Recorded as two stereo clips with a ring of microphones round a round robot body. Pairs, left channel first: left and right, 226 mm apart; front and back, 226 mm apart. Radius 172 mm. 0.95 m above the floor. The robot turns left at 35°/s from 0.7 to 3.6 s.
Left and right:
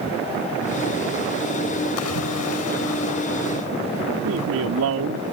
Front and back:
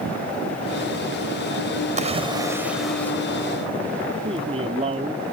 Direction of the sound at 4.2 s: 110° right.